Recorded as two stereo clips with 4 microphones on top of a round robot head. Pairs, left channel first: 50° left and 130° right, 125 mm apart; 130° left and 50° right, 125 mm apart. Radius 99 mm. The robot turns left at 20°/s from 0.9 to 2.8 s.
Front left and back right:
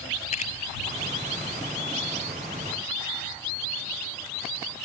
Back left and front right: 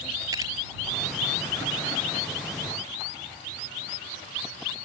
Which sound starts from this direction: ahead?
A camera shutter, at 0.3 s.